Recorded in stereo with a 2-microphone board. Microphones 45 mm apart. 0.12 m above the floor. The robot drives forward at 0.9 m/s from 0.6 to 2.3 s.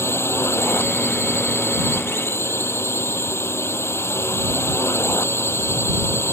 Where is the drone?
70° left (ahead or behind).